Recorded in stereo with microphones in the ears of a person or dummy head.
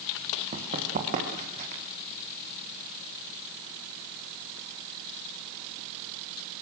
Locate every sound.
0.5 s running footsteps: 40° right (ahead or behind), 6 m; by 1.8 s 45° right (ahead or behind), 6.5 m